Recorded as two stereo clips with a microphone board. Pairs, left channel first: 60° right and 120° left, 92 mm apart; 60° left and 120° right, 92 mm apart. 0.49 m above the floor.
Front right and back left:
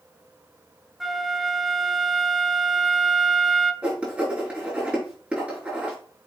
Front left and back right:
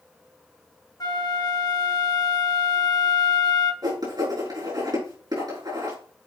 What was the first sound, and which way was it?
A flute, 35° left.